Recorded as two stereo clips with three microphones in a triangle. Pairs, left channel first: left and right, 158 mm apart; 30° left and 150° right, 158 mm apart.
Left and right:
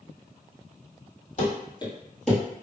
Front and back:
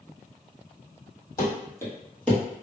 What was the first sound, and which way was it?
Running footsteps, 95° left.